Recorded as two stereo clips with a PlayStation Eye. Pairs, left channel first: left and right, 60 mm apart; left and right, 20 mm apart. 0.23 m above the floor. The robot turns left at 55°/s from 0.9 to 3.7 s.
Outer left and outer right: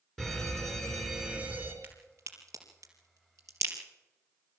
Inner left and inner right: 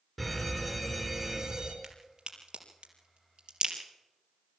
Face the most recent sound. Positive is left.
turn(degrees=-50)  # may be behind; listen again after turning